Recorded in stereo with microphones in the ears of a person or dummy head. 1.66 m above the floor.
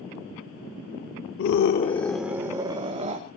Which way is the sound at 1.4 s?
60° left (ahead or behind).